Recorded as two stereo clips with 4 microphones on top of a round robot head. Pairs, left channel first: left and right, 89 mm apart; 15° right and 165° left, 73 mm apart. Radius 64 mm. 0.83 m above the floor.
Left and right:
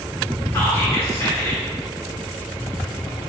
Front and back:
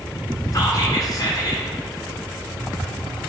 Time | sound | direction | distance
0.5 | whispering | 25° left | 2 m